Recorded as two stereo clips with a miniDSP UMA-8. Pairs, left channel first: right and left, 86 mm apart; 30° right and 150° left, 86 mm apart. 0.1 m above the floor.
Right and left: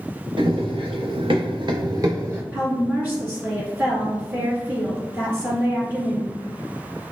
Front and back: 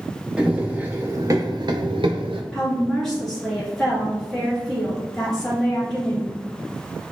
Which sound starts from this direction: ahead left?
A woman speaking, at 2.5 s.